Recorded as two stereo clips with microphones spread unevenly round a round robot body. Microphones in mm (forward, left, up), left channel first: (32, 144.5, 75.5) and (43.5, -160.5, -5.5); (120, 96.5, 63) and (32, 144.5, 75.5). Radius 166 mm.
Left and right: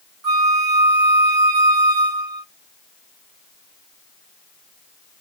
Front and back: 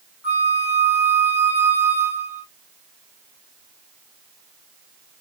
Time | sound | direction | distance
0.2 | a flute | 115° right | 2.0 m